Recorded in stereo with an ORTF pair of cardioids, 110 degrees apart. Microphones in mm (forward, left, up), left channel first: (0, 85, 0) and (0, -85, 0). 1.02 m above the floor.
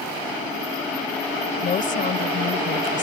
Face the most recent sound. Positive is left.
turn(degrees=50)